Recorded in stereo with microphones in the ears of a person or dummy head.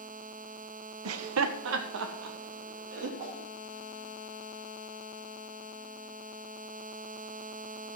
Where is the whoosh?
40° right (ahead or behind), 4 m.